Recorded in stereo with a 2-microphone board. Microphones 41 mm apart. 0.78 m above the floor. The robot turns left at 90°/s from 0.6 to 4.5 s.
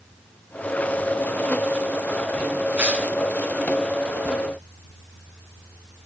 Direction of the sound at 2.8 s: 30° right (ahead or behind).